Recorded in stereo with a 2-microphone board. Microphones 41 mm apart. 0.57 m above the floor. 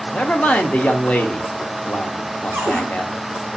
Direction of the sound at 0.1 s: 30° left (ahead or behind).